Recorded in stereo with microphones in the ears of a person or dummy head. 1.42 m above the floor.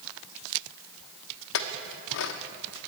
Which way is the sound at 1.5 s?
60° left (ahead or behind).